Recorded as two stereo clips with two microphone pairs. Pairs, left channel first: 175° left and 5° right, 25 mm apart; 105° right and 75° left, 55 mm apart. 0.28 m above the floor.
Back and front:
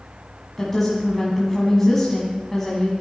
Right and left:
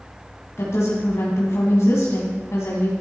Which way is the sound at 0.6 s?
105° right.